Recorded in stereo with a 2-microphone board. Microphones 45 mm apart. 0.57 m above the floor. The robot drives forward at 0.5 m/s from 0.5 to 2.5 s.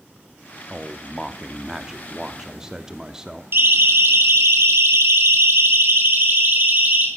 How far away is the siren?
About 3.5 m.